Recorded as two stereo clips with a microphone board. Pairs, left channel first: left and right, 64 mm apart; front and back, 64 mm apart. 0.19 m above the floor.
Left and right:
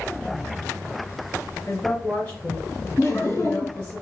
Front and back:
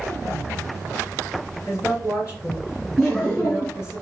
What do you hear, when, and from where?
1.7 s a woman speaking: 40° left, 2.5 m
3.0 s laughter: 75° left, 2.5 m